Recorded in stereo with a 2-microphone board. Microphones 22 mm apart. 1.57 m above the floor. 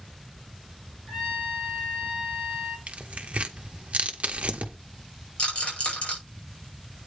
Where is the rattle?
55° left (ahead or behind), 5 m.